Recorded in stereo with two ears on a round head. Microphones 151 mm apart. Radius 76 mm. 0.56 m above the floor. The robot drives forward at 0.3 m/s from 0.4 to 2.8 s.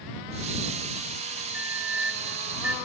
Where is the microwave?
5° right (ahead or behind), 1.8 m.